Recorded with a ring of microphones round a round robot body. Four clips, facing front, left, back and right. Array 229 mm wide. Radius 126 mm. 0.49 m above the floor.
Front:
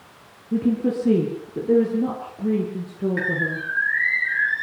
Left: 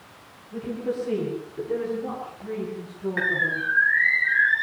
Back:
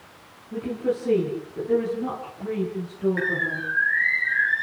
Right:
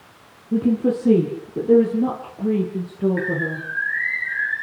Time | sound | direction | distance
0.5 | a woman speaking | 60° right | 6.5 m
3.2 | a bird | 80° left | 2 m